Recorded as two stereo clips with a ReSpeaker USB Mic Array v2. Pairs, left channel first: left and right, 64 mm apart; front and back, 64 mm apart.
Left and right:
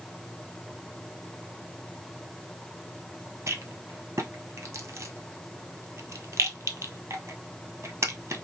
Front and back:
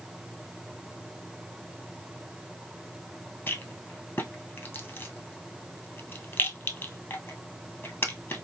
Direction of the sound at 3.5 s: 50° right.